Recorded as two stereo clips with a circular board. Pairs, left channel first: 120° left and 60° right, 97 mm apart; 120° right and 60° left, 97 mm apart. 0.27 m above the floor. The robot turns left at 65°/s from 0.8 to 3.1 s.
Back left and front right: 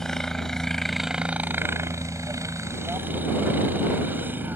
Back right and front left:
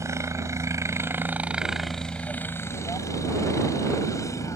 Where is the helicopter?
40° left; by 4.6 s 110° right.